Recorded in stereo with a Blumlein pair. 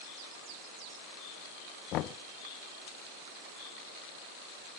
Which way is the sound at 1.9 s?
35° left.